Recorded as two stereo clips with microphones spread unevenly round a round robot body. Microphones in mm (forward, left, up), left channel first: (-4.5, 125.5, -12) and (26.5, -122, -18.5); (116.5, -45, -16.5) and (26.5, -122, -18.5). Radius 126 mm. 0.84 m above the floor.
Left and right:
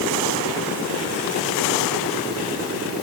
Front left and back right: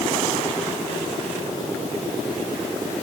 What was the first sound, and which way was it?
Only background noise.